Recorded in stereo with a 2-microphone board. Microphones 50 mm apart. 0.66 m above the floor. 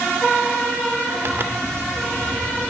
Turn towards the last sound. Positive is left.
turn(degrees=-50)  # may be behind; listen again after turning